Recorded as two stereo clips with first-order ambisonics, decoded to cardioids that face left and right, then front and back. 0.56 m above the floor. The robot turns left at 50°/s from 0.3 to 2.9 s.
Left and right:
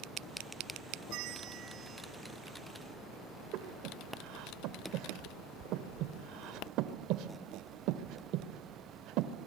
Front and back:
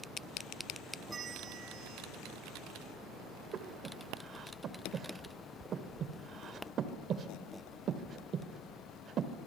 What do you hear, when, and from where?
1.1 s a bell: 110° right, 1.1 m; by 2.0 s 160° right, 1.1 m
3.5 s breathing: 125° right, 1.7 m